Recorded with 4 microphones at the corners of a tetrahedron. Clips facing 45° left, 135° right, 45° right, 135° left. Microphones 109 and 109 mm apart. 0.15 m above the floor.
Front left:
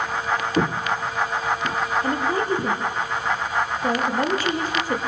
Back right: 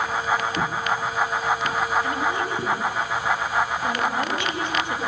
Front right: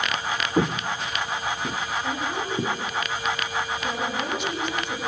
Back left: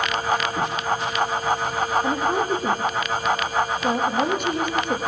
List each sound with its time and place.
0.6 s footsteps: straight ahead, 0.7 m; by 2.8 s 30° right, 3 m
2.0 s a woman speaking: 95° left, 5 m